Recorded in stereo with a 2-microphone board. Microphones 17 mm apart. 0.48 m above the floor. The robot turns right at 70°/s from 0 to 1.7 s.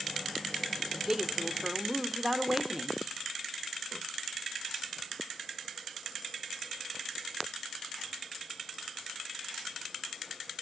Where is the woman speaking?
120° right, 1.5 m; by 3.0 s 65° right, 1.5 m.